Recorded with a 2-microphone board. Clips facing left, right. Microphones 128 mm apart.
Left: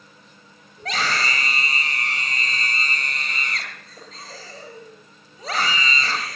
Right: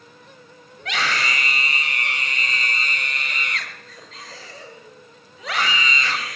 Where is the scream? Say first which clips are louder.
Even; 35° left (ahead or behind), 8 m.